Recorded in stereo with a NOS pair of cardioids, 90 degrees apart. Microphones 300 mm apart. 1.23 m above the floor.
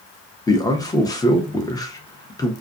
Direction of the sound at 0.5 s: 10° left.